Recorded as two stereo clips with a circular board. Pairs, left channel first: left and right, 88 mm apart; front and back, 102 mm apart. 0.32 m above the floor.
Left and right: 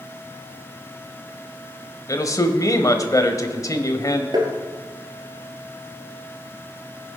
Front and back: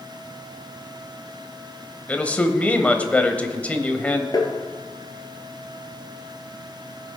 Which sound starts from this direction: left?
A man speaking, at 2.1 s.